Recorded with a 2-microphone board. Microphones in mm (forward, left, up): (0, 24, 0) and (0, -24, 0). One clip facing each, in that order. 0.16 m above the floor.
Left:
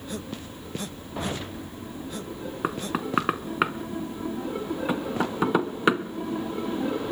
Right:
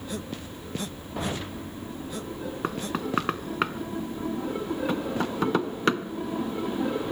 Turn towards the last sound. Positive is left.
turn(degrees=10)  # may be behind; listen again after turning